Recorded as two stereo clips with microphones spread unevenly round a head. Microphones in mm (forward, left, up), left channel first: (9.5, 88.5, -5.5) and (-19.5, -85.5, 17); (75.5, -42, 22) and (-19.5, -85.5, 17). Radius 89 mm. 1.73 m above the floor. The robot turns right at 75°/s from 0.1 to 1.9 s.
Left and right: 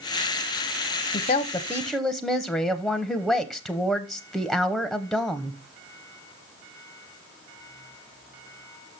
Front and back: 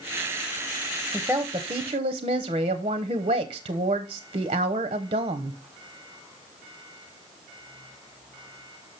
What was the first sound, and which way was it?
A woman speaking, 120° left.